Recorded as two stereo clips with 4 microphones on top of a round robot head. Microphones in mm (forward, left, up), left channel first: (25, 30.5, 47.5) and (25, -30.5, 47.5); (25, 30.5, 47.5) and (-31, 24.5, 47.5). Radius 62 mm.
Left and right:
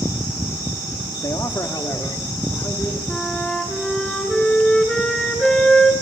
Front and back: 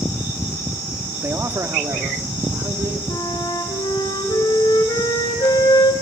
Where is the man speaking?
140° left, 1.6 m; by 3.0 s 150° left, 4 m.